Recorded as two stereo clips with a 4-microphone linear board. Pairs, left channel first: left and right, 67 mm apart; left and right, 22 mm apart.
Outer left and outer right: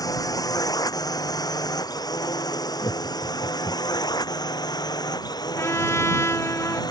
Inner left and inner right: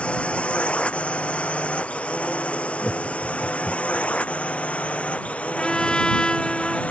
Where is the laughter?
70° left (ahead or behind).